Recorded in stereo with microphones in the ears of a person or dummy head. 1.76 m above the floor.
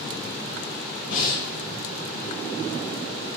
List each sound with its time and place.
1.1 s breathing: 55° left (ahead or behind), 8 m